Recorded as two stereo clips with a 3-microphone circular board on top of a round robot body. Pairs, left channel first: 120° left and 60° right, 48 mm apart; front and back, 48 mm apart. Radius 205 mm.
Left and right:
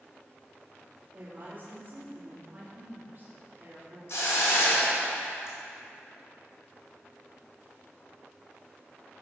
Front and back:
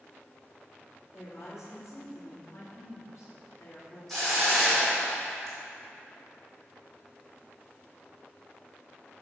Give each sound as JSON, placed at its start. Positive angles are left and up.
{"t": 1.1, "sound": "a woman speaking", "azimuth_deg": -10, "distance_m": 2.5}
{"t": 4.1, "sound": "a hiss", "azimuth_deg": 85, "distance_m": 0.9}